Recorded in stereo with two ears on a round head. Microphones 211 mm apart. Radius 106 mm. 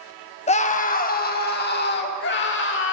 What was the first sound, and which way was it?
A scream, 25° left (ahead or behind).